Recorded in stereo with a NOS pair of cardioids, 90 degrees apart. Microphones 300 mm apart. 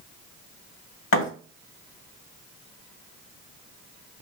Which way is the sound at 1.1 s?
60° left.